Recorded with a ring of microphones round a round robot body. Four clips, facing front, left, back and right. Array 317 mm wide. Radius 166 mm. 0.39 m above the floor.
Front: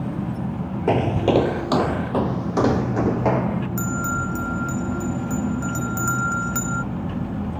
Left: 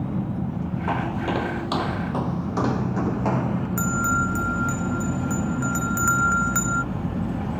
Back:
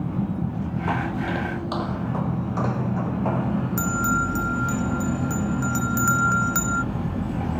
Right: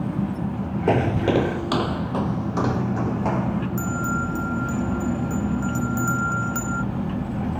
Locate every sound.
0.9 s footsteps: 45° right; by 3.7 s 5° left
3.8 s a bell: 100° left